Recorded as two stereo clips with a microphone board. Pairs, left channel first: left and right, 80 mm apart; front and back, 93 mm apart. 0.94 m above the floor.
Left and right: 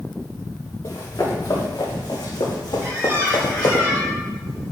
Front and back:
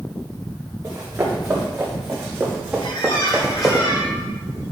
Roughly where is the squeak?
Ahead right.